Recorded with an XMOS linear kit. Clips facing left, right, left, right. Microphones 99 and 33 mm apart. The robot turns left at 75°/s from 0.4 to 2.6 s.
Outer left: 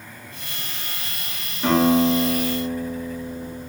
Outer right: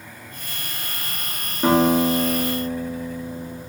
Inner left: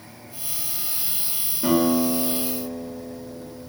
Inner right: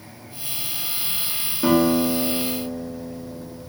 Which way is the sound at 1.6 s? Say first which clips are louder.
Even, inner right 2 dB; 35° right.